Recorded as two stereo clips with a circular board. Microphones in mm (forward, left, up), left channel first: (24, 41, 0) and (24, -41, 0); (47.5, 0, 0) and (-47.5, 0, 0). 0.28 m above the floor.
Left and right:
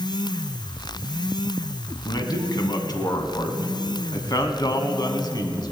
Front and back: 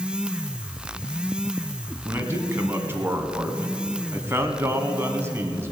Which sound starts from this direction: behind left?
A man speaking, at 2.0 s.